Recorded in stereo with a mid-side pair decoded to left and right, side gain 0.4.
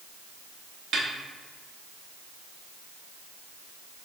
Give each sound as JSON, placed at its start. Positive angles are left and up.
{"t": 0.9, "sound": "a snare drum", "azimuth_deg": -70, "distance_m": 0.7}